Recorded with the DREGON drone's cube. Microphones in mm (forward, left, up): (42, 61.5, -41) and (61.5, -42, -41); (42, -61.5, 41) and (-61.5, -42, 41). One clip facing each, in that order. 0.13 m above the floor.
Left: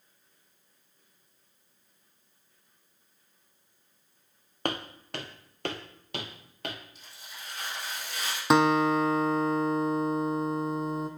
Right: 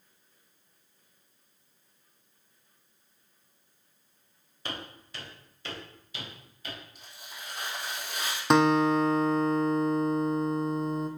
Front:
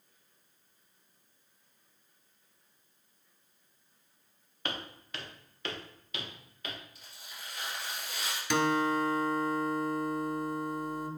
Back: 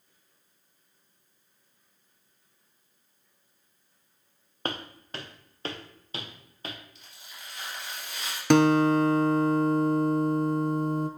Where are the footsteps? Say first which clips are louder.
Left 7 dB, back 5 dB; 120° left, 1.2 m; by 6.8 s 115° left, 2.5 m.